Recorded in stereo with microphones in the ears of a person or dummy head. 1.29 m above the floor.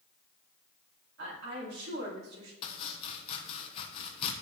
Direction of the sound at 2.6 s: 35° left (ahead or behind).